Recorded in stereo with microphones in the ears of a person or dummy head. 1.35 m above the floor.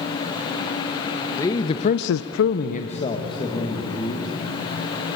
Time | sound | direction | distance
1.4 | a man speaking | 15° left (ahead or behind) | 1.3 m